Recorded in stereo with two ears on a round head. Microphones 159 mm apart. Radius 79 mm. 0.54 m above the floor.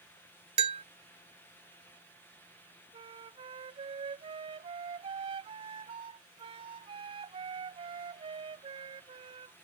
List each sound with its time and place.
0.6 s a bell: 35° right (ahead or behind)
2.9 s a flute: 30° right (ahead or behind)